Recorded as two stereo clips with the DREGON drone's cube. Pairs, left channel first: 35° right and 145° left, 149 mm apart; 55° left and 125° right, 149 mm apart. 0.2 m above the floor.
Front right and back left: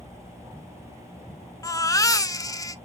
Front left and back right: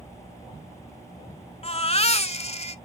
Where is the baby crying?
25° left, 0.5 m.